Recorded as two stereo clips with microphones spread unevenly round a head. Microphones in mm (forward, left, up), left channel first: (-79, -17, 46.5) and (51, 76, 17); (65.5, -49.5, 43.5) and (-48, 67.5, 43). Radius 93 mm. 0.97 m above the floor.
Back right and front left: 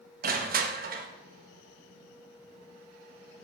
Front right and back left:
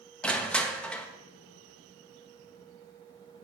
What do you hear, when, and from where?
0.2 s crushing: 40° left, 1.4 m